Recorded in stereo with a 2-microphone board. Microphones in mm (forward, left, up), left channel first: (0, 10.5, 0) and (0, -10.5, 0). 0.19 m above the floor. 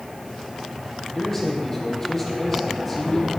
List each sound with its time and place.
1.1 s a man speaking: 25° left (ahead or behind), 5 m